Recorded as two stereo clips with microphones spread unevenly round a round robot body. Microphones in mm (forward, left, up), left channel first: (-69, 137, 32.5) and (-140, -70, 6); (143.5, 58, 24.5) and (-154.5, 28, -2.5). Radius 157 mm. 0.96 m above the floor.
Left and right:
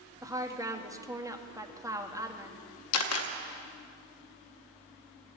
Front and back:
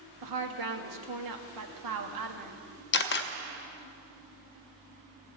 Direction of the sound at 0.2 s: 175° left.